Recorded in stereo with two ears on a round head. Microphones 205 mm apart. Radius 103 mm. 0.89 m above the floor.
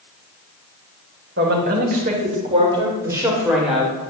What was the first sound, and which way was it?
A woman speaking, 50° right (ahead or behind).